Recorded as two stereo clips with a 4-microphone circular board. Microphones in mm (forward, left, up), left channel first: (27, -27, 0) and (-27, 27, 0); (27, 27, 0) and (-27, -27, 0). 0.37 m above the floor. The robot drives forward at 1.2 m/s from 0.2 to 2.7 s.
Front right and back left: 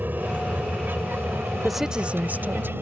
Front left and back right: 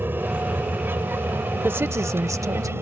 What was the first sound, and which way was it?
An aircraft, straight behind.